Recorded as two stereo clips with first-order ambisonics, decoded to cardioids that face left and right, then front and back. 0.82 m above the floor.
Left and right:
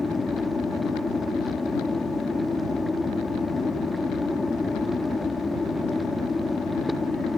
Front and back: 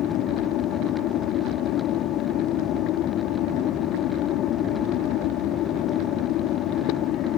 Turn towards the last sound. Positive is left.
turn(degrees=15)